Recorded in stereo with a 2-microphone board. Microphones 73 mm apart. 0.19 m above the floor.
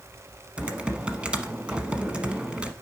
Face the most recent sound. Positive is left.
turn(degrees=-15)  # may be behind; listen again after turning